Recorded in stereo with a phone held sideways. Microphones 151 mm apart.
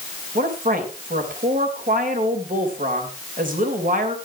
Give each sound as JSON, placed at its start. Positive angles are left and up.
{"t": 0.3, "sound": "a woman speaking", "side_deg": -65, "distance_m": 3.0}